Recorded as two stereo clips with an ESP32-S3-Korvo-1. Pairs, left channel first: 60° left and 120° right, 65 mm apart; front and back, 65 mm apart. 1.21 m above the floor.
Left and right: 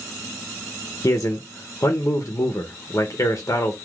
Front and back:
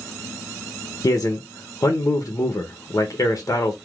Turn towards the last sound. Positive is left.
turn(degrees=25)